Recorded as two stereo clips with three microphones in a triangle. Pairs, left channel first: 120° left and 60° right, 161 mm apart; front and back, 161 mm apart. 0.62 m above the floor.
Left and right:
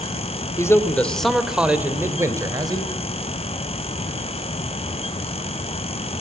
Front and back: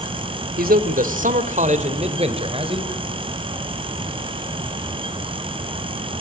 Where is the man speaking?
170° right, 2.5 m; by 2.9 s 120° right, 3.5 m.